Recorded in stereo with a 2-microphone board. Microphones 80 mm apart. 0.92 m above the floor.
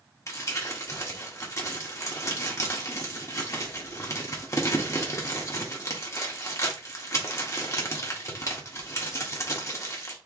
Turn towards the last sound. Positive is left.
turn(degrees=40)  # may be behind; listen again after turning